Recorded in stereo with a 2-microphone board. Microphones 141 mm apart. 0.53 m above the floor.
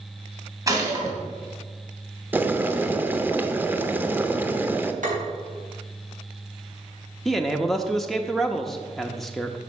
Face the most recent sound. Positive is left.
turn(degrees=0)  # may be behind; listen again after turning